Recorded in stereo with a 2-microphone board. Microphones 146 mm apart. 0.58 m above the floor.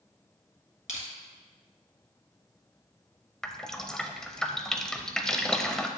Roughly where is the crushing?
Left.